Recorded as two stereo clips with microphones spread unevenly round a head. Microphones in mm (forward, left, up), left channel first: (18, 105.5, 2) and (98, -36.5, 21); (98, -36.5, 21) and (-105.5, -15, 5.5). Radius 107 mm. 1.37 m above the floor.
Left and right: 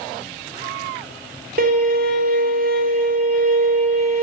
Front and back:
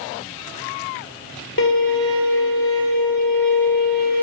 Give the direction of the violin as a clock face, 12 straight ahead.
1 o'clock.